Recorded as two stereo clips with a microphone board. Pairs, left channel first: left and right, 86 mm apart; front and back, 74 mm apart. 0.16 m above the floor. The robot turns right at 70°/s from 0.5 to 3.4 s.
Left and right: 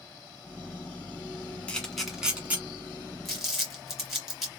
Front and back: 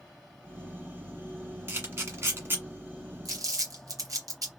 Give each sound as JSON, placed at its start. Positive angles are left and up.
{"t": 1.7, "sound": "a camera shutter", "azimuth_deg": 155, "distance_m": 1.6}
{"t": 3.2, "sound": "crumpling", "azimuth_deg": 170, "distance_m": 2.5}